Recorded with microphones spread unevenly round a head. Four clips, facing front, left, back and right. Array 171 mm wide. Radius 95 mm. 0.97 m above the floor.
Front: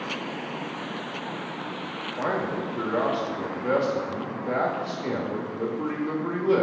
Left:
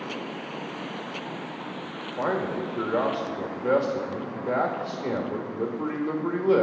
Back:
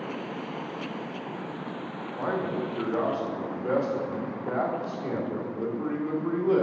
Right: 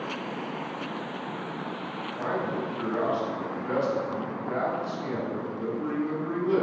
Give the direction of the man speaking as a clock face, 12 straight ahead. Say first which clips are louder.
Left 3 dB, front 1 dB; 10 o'clock.